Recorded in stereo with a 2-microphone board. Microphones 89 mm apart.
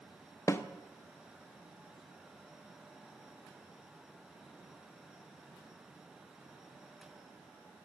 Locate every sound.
0.5 s a snare drum: 30° left (ahead or behind), 0.6 m